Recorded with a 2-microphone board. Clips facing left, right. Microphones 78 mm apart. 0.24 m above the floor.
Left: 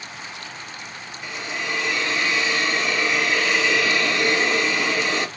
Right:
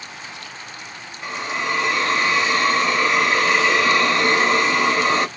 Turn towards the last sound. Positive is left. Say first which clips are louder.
# right 5 dB
turn(degrees=-45)  # may be behind; listen again after turning